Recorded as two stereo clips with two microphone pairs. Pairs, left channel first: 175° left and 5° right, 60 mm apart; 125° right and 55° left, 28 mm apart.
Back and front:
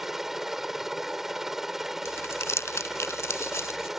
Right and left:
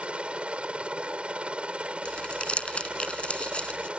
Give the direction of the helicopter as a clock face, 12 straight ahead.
9 o'clock.